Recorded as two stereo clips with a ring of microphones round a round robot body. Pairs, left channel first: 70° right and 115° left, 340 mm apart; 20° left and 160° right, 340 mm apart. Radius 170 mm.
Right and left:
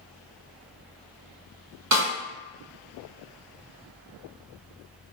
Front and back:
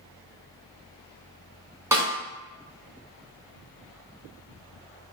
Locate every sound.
1.9 s a snare drum: 120° left, 1.4 m